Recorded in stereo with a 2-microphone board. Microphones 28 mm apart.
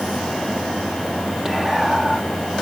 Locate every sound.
1.4 s whispering: 10° right (ahead or behind), 0.8 m